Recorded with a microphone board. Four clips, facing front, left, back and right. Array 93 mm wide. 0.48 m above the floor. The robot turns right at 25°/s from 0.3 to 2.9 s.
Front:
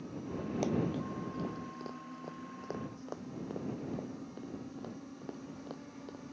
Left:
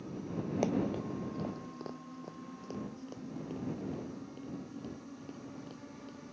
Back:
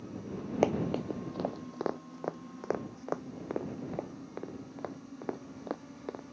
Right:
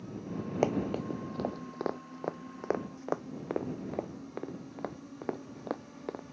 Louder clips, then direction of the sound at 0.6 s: Right 4 dB, back 5 dB; 150° right.